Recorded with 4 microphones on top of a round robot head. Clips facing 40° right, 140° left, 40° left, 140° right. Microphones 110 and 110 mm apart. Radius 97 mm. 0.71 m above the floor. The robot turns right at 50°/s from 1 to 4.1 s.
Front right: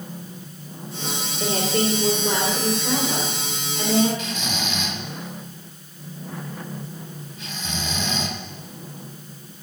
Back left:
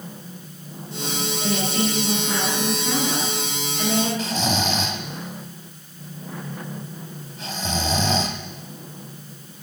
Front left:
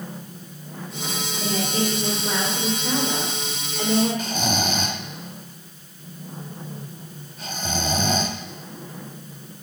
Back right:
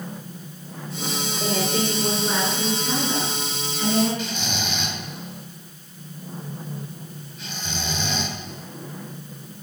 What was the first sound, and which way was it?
A woman speaking, 105° right.